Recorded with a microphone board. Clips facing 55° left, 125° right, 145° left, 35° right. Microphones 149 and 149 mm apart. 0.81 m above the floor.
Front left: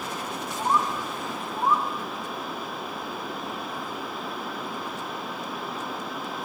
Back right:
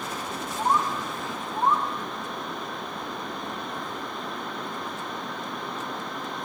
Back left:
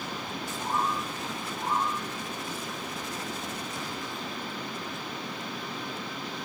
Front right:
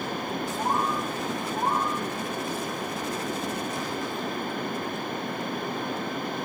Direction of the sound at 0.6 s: 60° right.